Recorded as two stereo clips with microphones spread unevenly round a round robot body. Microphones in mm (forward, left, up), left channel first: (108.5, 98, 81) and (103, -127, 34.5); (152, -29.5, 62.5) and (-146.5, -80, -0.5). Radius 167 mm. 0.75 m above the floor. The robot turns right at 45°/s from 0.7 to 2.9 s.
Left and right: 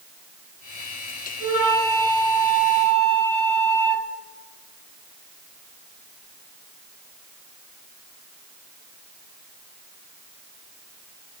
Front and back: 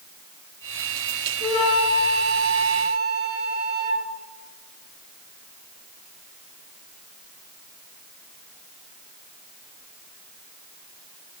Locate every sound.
1.4 s a flute: 60° left, 2.5 m; by 4.0 s 125° left, 2.5 m